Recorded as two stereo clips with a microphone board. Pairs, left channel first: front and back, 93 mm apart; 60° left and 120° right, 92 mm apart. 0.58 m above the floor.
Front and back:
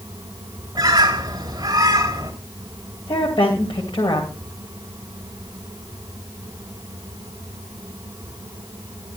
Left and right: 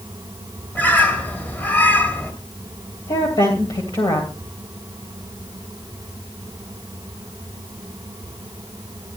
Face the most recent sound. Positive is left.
turn(degrees=30)